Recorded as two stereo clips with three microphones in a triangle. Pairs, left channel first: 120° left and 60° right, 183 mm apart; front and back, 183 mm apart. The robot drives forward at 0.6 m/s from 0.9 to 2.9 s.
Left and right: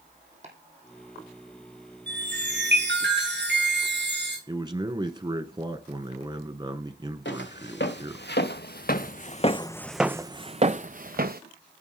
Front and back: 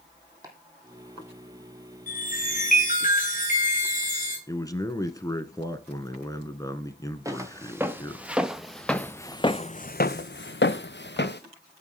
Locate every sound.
0.4 s chopping: 110° right, 3.5 m; by 3.1 s 125° right, 4 m
2.1 s a chime: 40° right, 8 m; by 4.4 s 45° right, 7.5 m
4.5 s a man speaking: 40° right, 1.3 m
7.2 s footsteps: 110° left, 2 m; by 11.4 s 25° right, 1.3 m